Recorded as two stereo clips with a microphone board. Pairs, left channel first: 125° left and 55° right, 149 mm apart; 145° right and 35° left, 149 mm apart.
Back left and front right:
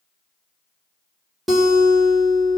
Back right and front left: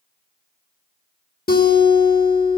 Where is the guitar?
145° right, 2.5 m.